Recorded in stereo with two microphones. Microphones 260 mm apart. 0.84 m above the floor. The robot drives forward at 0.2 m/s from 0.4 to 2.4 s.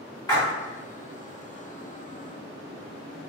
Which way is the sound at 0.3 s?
15° left (ahead or behind).